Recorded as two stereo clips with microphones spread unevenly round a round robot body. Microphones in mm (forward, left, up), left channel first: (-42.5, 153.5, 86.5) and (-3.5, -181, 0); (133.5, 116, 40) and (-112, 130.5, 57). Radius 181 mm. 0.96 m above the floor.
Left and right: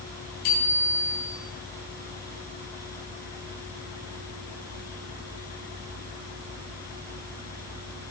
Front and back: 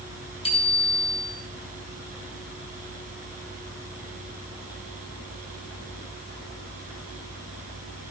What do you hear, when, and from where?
0.4 s a bicycle bell: 65° left, 6 m